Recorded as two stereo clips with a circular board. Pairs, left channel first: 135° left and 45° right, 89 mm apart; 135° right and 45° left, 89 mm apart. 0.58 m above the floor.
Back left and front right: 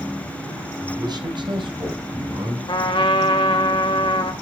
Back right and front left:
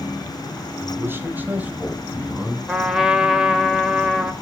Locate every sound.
0.8 s a man speaking: 10° right, 2.5 m; by 2.6 s 35° right, 5 m
2.7 s a trumpet: 130° left, 1.9 m